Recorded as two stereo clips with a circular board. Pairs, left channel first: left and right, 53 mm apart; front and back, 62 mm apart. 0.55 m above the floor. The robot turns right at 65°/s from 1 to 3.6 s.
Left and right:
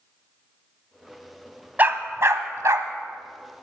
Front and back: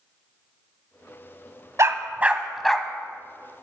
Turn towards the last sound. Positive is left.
turn(degrees=-25)